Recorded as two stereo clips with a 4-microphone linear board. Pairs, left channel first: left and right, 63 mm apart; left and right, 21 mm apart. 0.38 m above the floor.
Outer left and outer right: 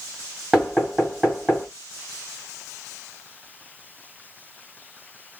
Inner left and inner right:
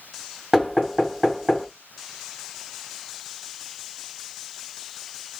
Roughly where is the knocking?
Centre.